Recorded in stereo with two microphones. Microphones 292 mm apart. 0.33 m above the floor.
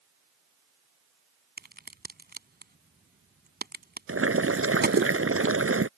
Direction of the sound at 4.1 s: 50° right (ahead or behind).